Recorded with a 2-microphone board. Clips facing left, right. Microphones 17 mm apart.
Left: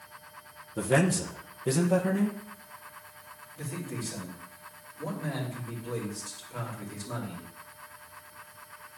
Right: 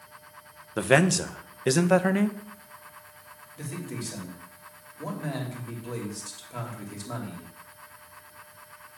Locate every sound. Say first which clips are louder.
0.8 s a man speaking: right 4 dB; 65° right (ahead or behind), 0.7 m
3.6 s a man speaking: right 1 dB; 35° right (ahead or behind), 2.5 m